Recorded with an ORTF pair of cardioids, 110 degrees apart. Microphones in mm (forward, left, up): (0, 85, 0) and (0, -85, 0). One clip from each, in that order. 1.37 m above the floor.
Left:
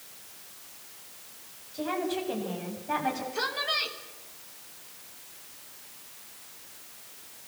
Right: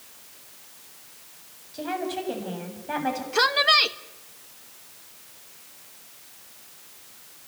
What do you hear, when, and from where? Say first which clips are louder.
1.7 s a woman speaking: right 1 dB; 20° right, 7.5 m
3.3 s a woman speaking: right 14 dB; 60° right, 1.4 m